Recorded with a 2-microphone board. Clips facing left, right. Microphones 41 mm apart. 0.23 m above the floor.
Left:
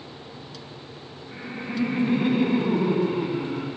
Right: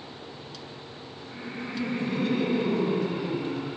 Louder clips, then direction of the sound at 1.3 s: Left 4 dB; 15° left (ahead or behind).